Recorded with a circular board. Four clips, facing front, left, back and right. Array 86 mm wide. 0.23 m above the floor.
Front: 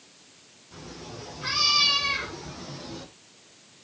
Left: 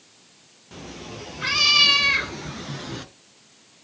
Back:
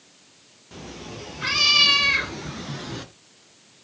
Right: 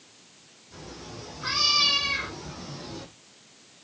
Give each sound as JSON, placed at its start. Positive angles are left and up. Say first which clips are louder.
{"t": 0.7, "sound": "a cat meowing", "louder": "left 4 dB, back 4 dB", "azimuth_deg": 130, "distance_m": 3.5}